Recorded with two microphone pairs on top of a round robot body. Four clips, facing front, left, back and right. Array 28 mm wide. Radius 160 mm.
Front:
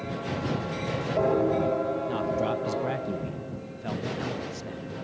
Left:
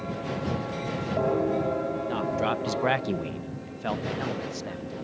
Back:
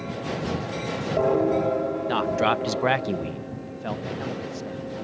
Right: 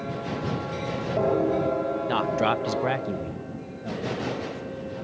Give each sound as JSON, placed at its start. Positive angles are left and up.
{"t": 2.1, "sound": "a man speaking", "azimuth_deg": -135}